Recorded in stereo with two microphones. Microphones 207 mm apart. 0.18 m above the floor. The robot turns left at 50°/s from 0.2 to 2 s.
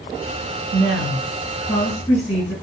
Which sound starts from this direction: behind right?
A woman speaking, at 0.7 s.